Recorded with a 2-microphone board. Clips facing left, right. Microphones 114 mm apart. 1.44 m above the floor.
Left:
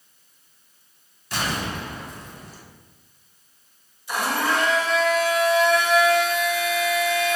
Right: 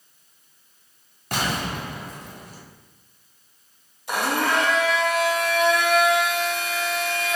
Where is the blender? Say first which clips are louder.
Right 1 dB; 55° right (ahead or behind), 0.5 m.